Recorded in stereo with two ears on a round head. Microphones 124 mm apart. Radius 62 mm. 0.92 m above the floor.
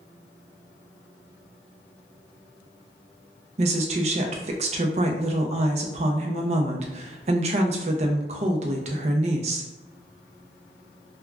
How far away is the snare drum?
I don't hear a snare drum.